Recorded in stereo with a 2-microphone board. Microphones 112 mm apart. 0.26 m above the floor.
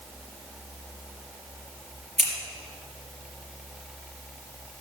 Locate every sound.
2.2 s scissors: 75° right (ahead or behind), 4 m